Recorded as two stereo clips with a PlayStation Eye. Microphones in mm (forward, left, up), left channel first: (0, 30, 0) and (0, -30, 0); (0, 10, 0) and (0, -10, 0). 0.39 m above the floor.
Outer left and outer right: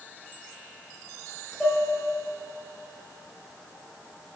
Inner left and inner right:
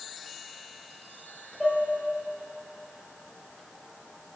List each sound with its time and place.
1.6 s dishes clattering: 5° left (ahead or behind), 7 m